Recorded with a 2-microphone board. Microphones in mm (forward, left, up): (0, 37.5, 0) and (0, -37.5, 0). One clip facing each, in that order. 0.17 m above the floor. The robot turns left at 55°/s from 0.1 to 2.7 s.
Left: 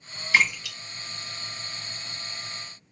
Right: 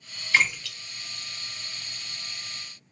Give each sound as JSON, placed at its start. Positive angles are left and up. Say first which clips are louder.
{"t": 0.3, "sound": "a splash", "louder": "left 1 dB", "side_deg": 15, "distance_m": 1.6}